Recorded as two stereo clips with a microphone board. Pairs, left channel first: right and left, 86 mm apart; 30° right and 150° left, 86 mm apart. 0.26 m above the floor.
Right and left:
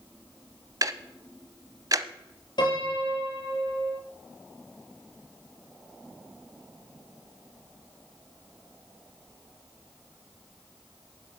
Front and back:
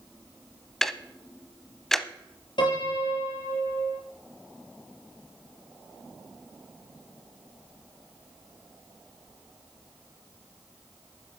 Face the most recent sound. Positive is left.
turn(degrees=-55)